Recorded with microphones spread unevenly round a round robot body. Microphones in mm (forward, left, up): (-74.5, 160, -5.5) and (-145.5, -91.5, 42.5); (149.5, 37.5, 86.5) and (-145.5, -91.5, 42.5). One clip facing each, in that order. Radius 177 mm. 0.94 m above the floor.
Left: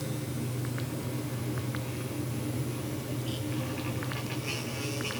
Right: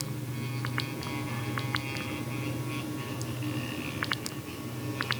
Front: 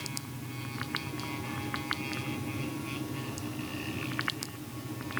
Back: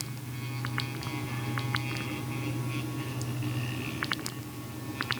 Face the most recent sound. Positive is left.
No sound to turn to.